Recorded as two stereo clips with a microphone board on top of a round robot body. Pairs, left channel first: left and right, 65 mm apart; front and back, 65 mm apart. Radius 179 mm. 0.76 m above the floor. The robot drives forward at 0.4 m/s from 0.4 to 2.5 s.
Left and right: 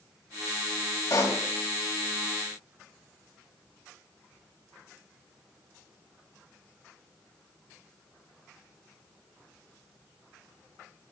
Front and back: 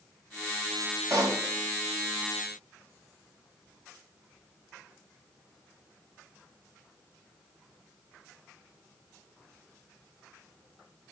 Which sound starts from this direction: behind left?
A pop, at 1.1 s.